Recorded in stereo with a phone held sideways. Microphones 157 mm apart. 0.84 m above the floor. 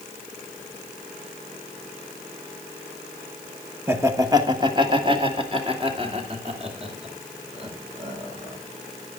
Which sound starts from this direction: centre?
Laughter, at 3.9 s.